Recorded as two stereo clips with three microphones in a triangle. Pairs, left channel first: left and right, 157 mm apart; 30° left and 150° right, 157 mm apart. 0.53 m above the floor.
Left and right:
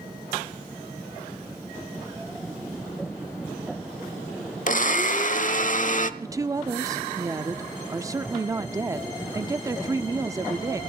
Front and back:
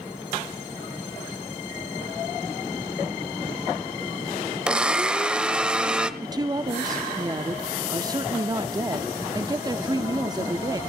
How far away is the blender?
About 0.9 m.